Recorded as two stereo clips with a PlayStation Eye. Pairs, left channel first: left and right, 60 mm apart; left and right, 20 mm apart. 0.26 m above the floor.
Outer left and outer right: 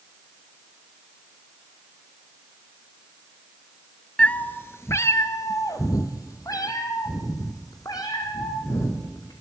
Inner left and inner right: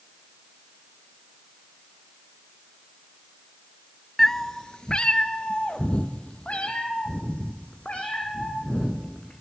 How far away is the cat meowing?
About 0.6 m.